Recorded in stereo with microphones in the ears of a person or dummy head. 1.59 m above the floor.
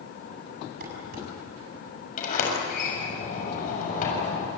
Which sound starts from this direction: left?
A sliding door, at 2.2 s.